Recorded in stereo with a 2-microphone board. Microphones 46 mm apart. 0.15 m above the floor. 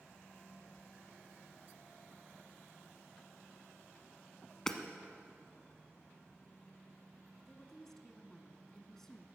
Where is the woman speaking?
10° left (ahead or behind), 1.1 m.